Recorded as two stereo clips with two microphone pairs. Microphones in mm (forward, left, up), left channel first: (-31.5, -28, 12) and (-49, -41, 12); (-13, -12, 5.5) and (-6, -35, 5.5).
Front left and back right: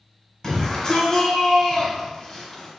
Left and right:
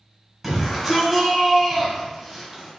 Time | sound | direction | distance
0.4 | a shout | 5° left | 1.3 m